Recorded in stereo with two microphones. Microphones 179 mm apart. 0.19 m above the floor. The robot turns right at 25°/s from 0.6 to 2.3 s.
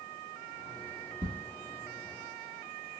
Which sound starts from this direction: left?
Ticking, at 1.2 s.